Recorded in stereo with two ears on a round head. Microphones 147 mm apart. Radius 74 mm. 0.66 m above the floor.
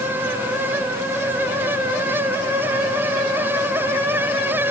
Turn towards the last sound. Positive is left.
No sound to turn to.